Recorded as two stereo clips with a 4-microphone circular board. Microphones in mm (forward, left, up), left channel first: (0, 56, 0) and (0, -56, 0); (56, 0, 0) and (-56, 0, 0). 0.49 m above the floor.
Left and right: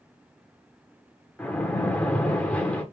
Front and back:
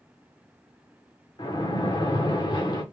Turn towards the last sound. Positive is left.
turn(degrees=20)